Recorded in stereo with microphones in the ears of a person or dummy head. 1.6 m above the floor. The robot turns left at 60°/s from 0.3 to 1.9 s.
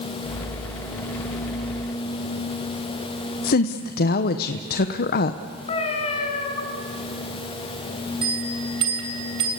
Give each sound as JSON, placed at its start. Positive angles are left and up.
{"t": 3.4, "sound": "a woman speaking", "side_deg": 50, "distance_m": 1.0}
{"t": 5.7, "sound": "a cat meowing", "side_deg": 35, "distance_m": 4.5}
{"t": 8.2, "sound": "a bell", "side_deg": -35, "distance_m": 3.0}